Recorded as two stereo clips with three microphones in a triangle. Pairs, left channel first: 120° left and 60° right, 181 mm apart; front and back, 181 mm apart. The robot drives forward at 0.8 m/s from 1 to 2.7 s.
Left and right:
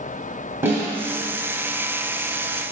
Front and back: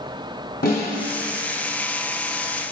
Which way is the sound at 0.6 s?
15° left.